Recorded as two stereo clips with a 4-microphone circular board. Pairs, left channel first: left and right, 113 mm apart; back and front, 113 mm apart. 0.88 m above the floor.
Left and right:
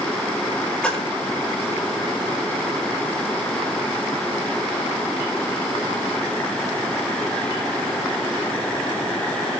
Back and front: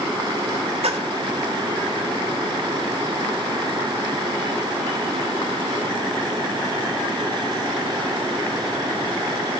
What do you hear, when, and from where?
0.8 s a splash: 10° left, 5 m